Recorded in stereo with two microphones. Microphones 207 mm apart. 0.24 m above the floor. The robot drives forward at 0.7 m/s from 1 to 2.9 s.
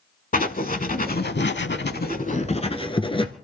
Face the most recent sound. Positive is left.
turn(degrees=25)  # may be behind; listen again after turning